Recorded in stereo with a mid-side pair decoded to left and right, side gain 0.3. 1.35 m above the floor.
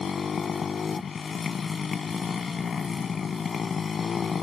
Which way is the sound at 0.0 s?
65° left.